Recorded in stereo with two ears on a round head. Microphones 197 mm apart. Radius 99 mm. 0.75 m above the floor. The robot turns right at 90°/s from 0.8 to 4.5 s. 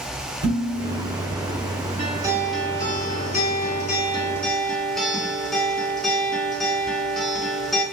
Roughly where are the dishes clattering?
Ahead right.